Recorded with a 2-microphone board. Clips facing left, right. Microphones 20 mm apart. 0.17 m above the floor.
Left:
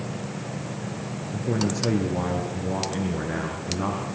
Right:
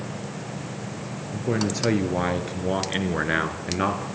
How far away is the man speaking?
About 3 m.